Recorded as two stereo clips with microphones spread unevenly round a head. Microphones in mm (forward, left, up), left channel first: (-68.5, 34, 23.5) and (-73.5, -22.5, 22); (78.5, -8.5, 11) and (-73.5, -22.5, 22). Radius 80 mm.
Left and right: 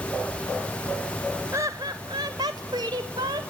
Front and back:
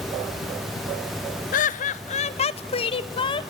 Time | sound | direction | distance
1.5 | laughter | 25° right | 1.0 m